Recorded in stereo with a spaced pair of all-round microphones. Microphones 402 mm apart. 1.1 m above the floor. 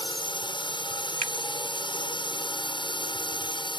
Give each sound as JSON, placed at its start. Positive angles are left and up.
{"t": 0.0, "sound": "a drone", "side_deg": 10}
{"t": 1.2, "sound": "a finger snap", "side_deg": -80}